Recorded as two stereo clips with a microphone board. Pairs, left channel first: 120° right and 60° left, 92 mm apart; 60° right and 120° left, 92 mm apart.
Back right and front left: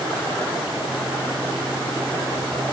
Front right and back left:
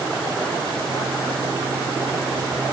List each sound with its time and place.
Only background noise.